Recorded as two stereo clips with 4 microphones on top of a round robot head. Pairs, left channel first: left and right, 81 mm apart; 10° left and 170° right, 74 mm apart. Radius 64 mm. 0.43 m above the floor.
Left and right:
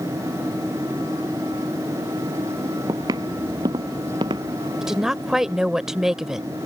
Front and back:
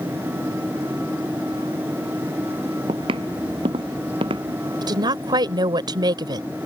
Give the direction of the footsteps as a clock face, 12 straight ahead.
5 o'clock.